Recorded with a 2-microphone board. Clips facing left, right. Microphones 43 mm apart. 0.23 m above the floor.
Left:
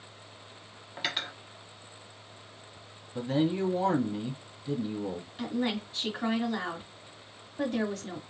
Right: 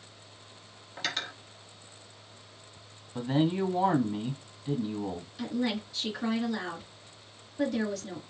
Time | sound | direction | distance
1.0 | cutlery clinking | 15° left (ahead or behind) | 1.2 m
3.1 | a man speaking | 20° right (ahead or behind) | 1.4 m
5.4 | a woman speaking | 35° left (ahead or behind) | 1.8 m